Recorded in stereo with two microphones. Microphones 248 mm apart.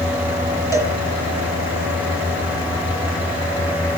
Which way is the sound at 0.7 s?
10° right (ahead or behind).